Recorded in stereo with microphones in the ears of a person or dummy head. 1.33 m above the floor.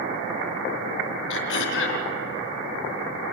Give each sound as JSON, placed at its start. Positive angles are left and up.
{"t": 1.3, "sound": "throat clearing", "side_deg": 65, "distance_m": 2.5}